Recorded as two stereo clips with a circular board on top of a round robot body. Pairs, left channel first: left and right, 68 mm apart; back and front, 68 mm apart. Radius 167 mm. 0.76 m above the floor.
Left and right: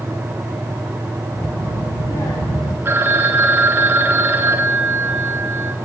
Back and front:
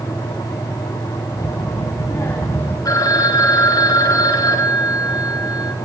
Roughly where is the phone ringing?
Behind right.